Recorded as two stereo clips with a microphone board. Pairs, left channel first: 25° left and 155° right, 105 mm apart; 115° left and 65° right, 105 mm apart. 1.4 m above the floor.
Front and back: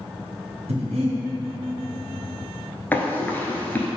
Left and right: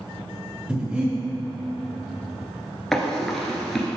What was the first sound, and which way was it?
Breathing, 145° right.